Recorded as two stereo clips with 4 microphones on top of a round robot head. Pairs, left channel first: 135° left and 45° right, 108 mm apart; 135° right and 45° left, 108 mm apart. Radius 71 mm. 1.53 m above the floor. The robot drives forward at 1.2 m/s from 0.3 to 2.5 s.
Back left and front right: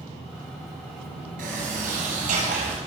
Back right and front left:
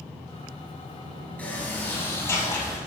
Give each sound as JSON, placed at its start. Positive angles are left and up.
{"t": 1.4, "sound": "a sliding door", "azimuth_deg": -60, "distance_m": 5.5}